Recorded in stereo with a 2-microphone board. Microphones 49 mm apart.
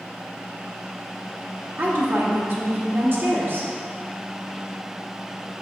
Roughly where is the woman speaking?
Right.